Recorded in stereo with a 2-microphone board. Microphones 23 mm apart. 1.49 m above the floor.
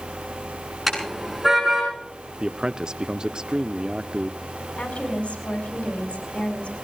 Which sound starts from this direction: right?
A man speaking, at 2.4 s.